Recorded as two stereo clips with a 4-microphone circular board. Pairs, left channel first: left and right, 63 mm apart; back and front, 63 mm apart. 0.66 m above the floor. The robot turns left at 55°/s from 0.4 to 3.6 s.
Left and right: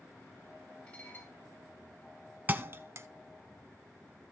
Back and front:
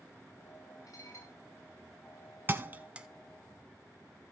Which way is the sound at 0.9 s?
170° left.